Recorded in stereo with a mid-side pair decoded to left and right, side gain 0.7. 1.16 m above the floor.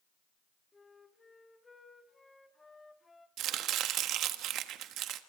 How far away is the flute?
About 1.6 m.